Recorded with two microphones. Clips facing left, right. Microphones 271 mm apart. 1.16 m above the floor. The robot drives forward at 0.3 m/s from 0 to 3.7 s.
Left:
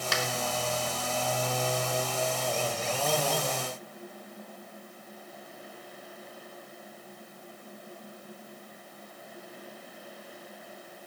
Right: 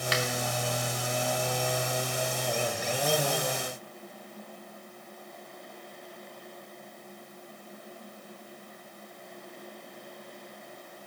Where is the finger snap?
50° left (ahead or behind), 3 m.